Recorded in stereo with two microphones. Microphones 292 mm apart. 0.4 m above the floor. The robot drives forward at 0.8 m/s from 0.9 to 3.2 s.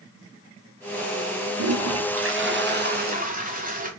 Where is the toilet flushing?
60° right (ahead or behind), 1.0 m; by 3.9 s 30° right (ahead or behind), 1.7 m.